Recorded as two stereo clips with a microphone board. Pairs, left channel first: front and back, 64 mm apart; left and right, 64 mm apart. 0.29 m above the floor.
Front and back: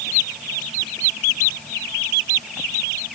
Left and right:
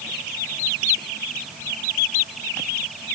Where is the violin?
I don't hear a violin.